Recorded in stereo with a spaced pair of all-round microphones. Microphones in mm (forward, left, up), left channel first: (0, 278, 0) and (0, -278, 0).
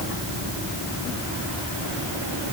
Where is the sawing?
No sawing in this recording.